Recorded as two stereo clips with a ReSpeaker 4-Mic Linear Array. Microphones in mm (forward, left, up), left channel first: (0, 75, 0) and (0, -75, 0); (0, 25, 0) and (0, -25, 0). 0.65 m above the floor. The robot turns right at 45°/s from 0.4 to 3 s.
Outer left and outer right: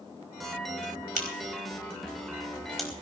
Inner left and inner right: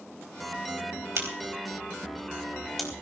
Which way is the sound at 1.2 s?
70° right (ahead or behind).